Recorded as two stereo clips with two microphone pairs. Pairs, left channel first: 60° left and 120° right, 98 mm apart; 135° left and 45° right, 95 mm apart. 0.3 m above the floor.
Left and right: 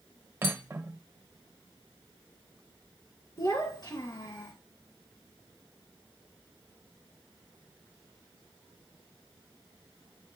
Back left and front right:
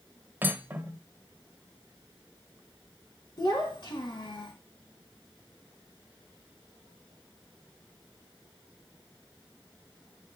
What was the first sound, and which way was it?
Cutlery clinking, 90° right.